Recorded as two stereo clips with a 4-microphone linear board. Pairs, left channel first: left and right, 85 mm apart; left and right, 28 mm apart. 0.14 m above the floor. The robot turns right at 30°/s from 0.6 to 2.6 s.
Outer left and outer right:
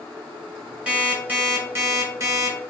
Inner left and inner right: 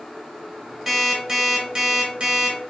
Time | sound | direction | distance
0.9 | an alarm clock | 165° right | 1.0 m